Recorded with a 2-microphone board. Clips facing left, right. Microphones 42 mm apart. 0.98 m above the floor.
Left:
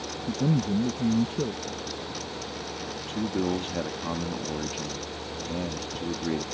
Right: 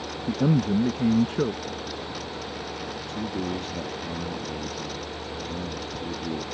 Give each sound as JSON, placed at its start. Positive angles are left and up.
{"t": 0.3, "sound": "a man speaking", "side_deg": -70}
{"t": 3.1, "sound": "a man speaking", "side_deg": 70}